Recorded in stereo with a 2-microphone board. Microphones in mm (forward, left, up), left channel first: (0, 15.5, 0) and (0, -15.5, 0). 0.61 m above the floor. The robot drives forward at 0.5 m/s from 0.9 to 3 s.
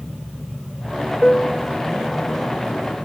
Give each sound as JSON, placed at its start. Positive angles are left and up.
{"t": 1.2, "sound": "a piano", "side_deg": 25, "distance_m": 0.9}